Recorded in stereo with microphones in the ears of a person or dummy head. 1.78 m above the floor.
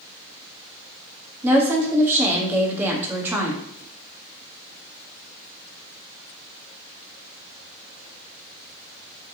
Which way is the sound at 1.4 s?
10° right (ahead or behind).